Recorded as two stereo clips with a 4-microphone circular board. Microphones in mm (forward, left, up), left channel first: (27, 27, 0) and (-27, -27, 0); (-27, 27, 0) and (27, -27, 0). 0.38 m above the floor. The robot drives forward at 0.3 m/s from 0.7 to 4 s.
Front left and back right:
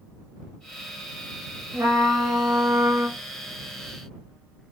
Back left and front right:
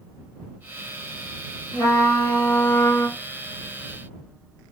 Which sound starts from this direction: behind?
A trumpet, at 1.7 s.